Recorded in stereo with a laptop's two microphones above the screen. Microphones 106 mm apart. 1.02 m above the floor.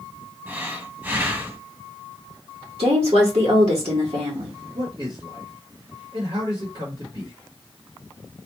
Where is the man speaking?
55° right (ahead or behind), 1.9 m.